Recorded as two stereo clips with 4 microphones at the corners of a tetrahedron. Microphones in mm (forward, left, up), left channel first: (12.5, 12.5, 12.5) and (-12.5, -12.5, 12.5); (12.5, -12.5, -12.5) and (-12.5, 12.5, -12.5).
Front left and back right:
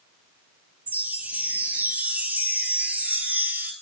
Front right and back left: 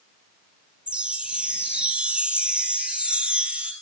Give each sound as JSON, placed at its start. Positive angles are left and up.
{"t": 0.9, "sound": "a chime", "azimuth_deg": -165, "distance_m": 0.7}